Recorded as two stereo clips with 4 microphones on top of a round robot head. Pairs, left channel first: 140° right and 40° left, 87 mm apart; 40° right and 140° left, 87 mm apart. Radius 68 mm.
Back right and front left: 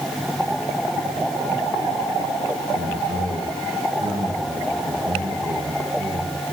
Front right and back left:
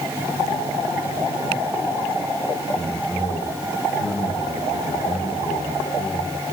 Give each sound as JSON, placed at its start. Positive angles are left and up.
{"t": 2.8, "sound": "a man speaking", "azimuth_deg": 90, "distance_m": 7.5}